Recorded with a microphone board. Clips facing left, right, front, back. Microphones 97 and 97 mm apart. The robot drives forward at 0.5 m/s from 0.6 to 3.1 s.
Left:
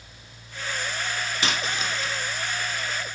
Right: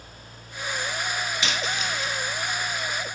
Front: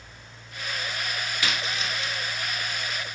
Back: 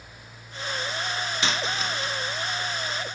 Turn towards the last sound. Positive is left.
turn(degrees=155)